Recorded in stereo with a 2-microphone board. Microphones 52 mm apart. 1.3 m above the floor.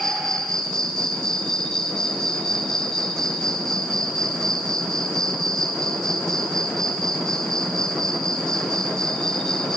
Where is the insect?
10° left (ahead or behind), 4.5 m.